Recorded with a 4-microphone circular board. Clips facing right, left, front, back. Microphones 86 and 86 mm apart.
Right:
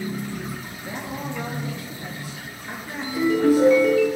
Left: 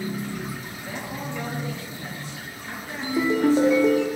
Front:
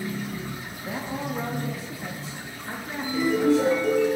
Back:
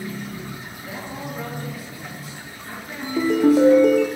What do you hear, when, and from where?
0.8 s a man speaking: 25° right, 0.7 m
3.0 s a ringtone: 155° left, 0.8 m